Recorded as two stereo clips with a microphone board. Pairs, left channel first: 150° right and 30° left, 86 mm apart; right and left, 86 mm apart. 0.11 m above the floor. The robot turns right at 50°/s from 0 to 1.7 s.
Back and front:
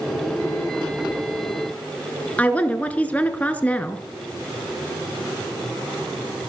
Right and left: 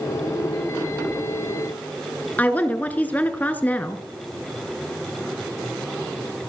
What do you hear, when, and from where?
2.4 s a woman speaking: 115° right, 1.1 m